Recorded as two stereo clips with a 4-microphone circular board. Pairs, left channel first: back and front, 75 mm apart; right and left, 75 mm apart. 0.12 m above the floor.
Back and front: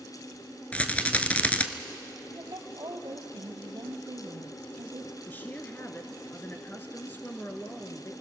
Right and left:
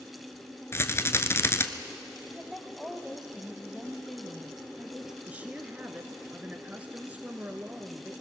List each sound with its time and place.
0.7 s a rattle: 115° right, 1.0 m
2.3 s a woman speaking: 5° left, 2 m
5.3 s a woman speaking: 140° left, 1.2 m